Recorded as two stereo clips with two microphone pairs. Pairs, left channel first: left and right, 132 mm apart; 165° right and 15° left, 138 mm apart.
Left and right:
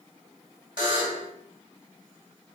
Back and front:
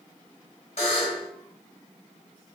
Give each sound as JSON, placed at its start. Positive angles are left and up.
{"t": 0.8, "sound": "a buzzer", "azimuth_deg": -135, "distance_m": 0.8}